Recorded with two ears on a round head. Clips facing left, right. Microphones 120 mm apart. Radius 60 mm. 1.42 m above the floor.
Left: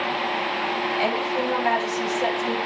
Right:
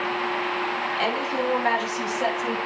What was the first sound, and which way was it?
A woman speaking, 55° right (ahead or behind).